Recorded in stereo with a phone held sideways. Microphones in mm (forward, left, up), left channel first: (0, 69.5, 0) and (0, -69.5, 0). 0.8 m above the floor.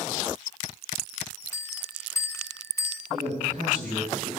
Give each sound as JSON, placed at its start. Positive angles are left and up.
{"t": 1.5, "sound": "a bell", "side_deg": 20, "distance_m": 0.9}
{"t": 3.1, "sound": "a man speaking", "side_deg": -60, "distance_m": 9.0}